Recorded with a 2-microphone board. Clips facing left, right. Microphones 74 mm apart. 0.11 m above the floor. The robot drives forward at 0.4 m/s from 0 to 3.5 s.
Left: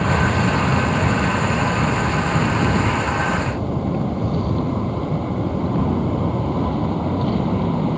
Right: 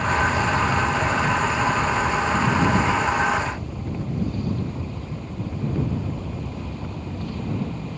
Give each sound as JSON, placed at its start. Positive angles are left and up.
{"t": 0.0, "sound": "an aircraft", "side_deg": 60}